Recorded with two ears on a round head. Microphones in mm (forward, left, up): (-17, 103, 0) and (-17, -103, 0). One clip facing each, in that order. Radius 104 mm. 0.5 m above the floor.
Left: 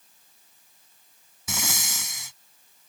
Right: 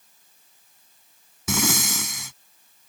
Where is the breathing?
55° right (ahead or behind).